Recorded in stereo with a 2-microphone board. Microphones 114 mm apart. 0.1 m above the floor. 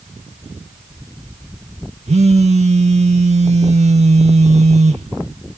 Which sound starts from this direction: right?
A phone buzzing, at 2.1 s.